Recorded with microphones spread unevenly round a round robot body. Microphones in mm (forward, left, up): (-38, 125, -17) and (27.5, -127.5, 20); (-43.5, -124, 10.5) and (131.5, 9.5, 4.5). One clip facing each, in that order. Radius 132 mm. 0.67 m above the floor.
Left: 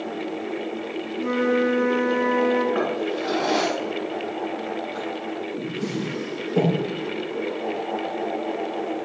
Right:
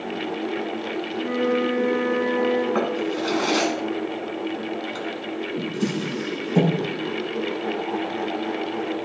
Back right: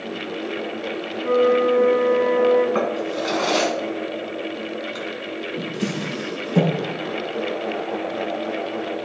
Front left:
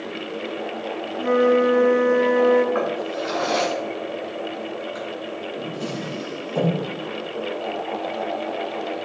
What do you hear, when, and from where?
1.2 s a flute: 45° left, 0.8 m
2.8 s a drawer: 100° right, 1.6 m